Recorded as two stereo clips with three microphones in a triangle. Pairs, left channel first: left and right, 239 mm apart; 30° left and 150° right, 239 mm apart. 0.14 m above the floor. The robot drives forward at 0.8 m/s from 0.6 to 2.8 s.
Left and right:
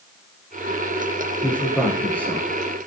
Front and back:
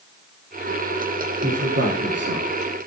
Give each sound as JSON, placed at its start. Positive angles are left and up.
{"t": 1.4, "sound": "a man speaking", "azimuth_deg": 175, "distance_m": 7.0}